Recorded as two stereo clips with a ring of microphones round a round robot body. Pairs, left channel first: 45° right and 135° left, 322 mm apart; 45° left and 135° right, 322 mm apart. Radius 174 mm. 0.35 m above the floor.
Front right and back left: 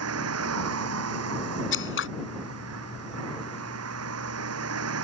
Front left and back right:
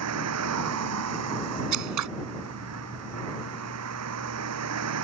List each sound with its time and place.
0.0 s a vehicle: straight behind
1.7 s scissors: 100° right